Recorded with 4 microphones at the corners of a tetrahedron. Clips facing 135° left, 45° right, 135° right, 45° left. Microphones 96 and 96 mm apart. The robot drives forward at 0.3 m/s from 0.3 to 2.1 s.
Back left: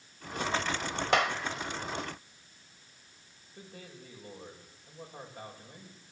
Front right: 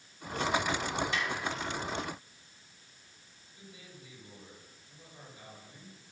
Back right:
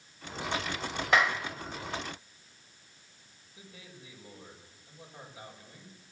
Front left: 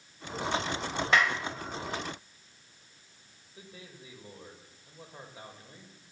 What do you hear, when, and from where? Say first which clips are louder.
1.1 s a clap: back left 7 dB, back right 1 dB; 140° left, 1.9 m; by 1.4 s 145° left, 2 m
3.5 s a man speaking: back left 4 dB, front left 2 dB; 100° left, 6.5 m